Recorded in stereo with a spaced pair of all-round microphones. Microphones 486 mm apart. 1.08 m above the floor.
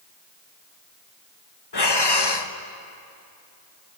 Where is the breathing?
55° left (ahead or behind), 1.1 m.